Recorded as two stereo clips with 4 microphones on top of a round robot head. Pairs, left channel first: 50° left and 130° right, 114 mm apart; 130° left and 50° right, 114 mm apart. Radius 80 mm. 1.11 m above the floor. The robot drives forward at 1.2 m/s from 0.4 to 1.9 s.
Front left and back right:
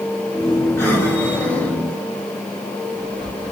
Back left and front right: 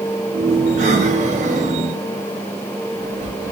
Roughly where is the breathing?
Ahead.